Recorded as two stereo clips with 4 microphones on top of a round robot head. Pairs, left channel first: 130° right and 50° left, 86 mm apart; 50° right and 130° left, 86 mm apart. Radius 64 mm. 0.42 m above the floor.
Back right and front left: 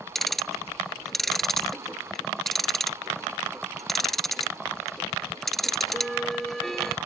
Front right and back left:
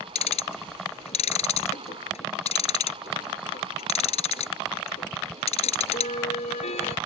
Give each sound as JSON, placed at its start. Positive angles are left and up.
{"t": 0.1, "sound": "ticking", "azimuth_deg": -45}